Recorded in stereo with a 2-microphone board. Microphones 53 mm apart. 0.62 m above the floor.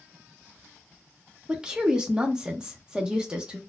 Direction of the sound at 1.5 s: 15° right (ahead or behind).